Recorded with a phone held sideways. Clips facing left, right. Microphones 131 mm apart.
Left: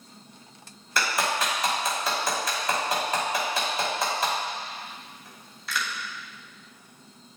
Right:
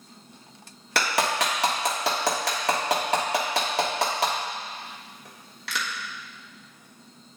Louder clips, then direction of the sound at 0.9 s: Right 2 dB; 75° right (ahead or behind).